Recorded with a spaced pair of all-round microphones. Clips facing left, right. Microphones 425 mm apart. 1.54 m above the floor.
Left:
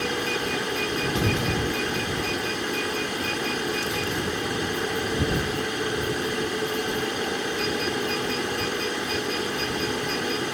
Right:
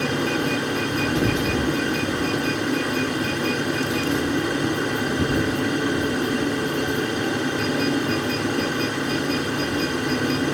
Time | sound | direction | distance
0.0 | a fan | 70° right (ahead or behind) | ?